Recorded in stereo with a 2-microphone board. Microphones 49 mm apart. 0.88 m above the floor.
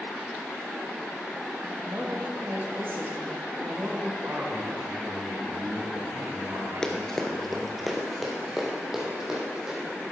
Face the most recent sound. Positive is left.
turn(degrees=-15)  # may be behind; listen again after turning